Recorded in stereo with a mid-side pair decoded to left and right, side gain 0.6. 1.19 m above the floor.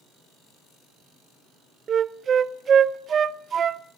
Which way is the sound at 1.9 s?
40° right.